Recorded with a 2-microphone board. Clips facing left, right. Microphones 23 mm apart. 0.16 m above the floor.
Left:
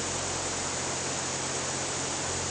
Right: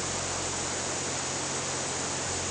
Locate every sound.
Only background noise.